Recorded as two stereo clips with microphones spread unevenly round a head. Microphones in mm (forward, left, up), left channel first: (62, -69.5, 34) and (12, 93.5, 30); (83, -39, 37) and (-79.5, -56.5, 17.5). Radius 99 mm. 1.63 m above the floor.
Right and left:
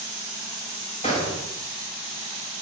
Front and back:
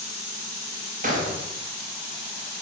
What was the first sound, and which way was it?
A gunshot, 135° right.